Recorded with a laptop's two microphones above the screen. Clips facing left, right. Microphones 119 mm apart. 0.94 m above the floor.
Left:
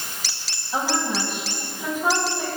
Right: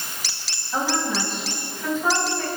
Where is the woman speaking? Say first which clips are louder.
Even; 10° left (ahead or behind), 6.5 m.